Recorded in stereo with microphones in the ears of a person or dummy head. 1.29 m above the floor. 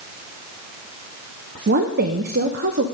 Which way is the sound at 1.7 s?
50° right (ahead or behind).